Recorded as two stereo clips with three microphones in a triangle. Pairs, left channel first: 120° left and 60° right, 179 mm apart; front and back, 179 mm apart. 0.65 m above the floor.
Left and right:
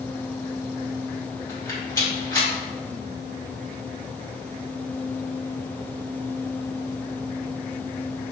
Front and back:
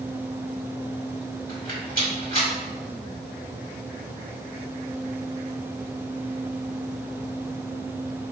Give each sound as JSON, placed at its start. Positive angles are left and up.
{"t": 1.5, "sound": "a rattle", "azimuth_deg": -175, "distance_m": 1.7}